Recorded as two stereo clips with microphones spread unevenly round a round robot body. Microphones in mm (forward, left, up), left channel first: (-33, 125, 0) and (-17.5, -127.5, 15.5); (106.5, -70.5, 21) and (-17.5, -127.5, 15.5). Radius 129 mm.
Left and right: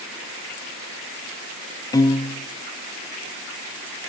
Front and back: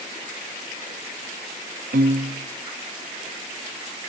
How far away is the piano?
About 0.6 m.